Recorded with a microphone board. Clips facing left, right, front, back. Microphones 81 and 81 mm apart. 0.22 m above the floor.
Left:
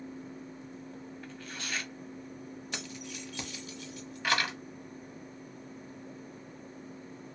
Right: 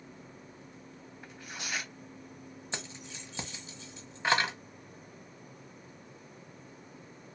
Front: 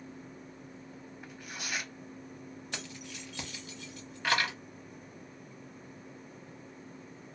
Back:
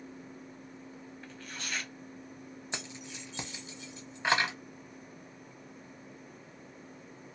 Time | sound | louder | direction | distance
1.2 | tearing paper | right 2 dB, front 1 dB | 45° right | 0.6 m
2.7 | keys jangling | right 1 dB, back 2 dB | 130° right | 0.8 m